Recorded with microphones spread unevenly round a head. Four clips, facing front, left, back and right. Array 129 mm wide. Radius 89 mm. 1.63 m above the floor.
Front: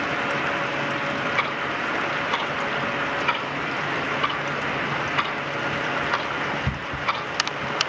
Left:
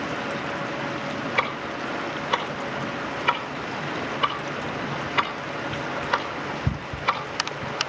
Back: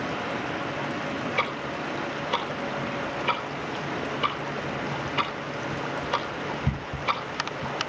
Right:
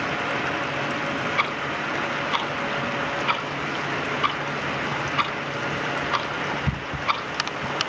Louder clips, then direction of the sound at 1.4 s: Right 1 dB, front 3 dB; 120° left.